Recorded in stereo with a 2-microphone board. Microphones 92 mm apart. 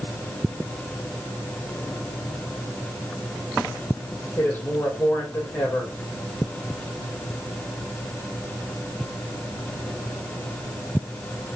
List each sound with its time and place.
4.4 s a man speaking: 20° left (ahead or behind), 4.5 m